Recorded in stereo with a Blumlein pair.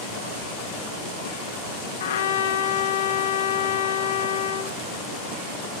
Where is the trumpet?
60° left, 0.8 m.